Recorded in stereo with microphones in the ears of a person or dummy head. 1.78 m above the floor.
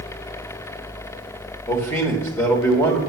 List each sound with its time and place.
1.7 s a man speaking: 10° left (ahead or behind), 2 m